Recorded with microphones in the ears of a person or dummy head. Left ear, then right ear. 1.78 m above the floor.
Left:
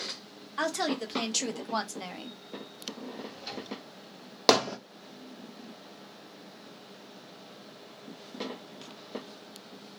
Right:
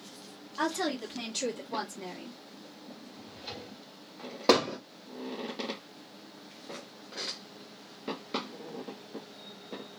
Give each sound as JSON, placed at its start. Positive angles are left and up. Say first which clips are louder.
{"t": 0.6, "sound": "a woman speaking", "louder": "left 1 dB", "side_deg": 50, "distance_m": 1.5}
{"t": 3.1, "sound": "a drawer", "louder": "left 3 dB", "side_deg": 50, "distance_m": 1.7}
{"t": 4.5, "sound": "hammering", "louder": "left 1 dB", "side_deg": 65, "distance_m": 0.9}